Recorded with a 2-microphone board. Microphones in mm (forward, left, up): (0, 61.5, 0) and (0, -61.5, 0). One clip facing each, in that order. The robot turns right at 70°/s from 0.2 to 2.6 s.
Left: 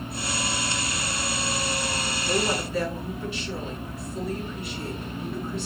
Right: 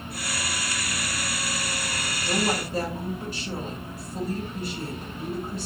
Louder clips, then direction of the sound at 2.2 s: Even; 15° right (ahead or behind).